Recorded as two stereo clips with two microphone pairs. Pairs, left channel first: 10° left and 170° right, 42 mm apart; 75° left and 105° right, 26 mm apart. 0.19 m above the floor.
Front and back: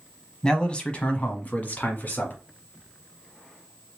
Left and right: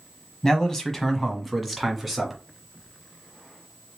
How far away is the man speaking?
About 1.1 m.